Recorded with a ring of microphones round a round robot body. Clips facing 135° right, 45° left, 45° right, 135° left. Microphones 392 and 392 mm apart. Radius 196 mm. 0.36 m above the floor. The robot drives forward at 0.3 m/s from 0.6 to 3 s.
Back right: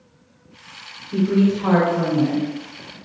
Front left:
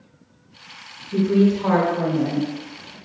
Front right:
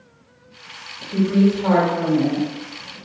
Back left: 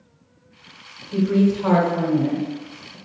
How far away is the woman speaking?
About 1.1 m.